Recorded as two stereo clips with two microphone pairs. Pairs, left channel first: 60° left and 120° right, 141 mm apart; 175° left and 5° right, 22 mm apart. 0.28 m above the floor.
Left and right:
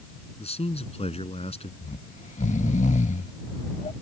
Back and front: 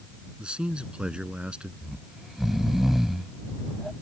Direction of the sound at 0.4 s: 20° left.